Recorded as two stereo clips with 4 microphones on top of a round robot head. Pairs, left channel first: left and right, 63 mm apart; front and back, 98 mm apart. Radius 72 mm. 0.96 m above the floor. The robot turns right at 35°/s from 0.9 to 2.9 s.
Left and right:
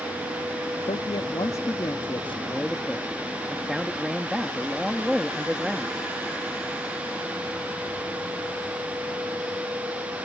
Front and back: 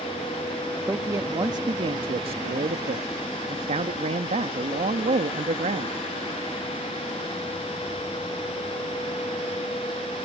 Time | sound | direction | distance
0.9 | a man speaking | 115° left | ?